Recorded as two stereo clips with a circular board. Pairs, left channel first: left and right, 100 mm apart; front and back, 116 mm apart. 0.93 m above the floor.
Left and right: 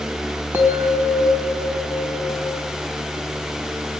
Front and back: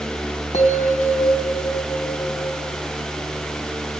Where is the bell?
20° right, 3.5 m.